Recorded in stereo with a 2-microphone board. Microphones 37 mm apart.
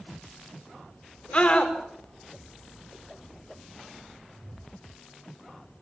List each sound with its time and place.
1.3 s a scream: 30° left (ahead or behind), 5 m